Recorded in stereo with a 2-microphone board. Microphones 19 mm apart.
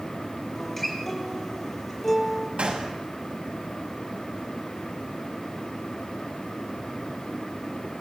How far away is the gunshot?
About 6 m.